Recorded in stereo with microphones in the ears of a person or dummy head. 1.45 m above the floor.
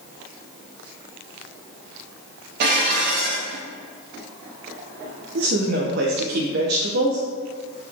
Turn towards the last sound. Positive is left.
turn(degrees=-55)  # may be behind; listen again after turning